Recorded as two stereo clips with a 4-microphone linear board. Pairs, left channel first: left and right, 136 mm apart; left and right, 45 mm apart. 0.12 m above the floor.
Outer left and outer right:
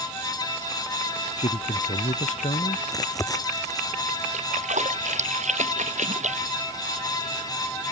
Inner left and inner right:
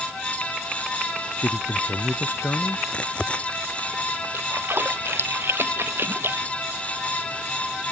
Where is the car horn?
I don't hear a car horn.